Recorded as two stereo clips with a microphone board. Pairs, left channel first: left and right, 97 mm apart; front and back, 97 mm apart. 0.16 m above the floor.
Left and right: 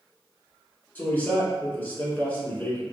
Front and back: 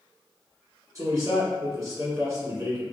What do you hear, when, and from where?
0.9 s a man speaking: 150° left, 1.4 m